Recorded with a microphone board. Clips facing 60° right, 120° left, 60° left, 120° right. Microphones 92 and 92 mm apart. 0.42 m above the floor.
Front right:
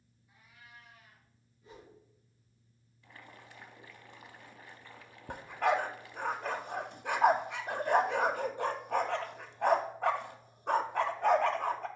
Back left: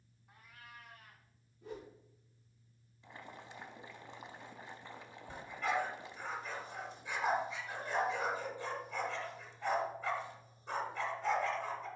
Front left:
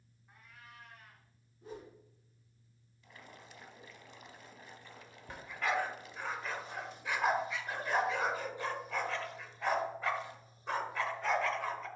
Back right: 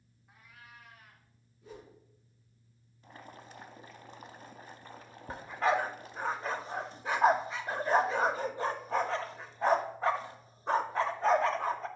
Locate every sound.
0.3 s a cat meowing: 155° left, 1.1 m
1.6 s a whoosh: 110° left, 3 m
3.0 s boiling: 170° right, 0.6 m
5.3 s a dog barking: 70° right, 0.6 m